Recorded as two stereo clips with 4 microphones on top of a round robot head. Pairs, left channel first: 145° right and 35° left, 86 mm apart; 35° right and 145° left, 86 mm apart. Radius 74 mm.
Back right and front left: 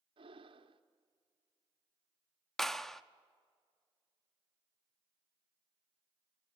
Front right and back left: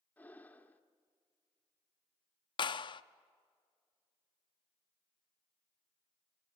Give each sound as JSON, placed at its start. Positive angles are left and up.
{"t": 0.2, "sound": "breathing", "azimuth_deg": 35, "distance_m": 1.3}
{"t": 2.6, "sound": "a clap", "azimuth_deg": -60, "distance_m": 0.6}